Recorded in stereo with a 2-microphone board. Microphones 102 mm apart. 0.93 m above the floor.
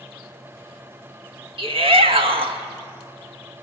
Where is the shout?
65° right (ahead or behind), 1.7 m.